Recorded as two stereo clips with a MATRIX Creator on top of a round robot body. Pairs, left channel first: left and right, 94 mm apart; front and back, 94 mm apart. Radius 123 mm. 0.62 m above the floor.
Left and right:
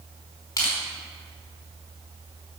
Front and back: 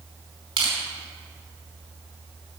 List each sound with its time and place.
0.6 s crushing: 150° left, 5 m